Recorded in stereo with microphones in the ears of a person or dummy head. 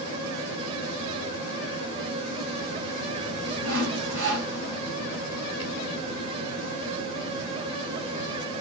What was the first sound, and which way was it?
Sawing, 70° right (ahead or behind).